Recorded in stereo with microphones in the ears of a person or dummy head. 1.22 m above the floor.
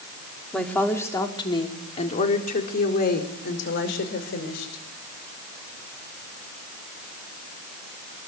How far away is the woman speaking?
About 3 m.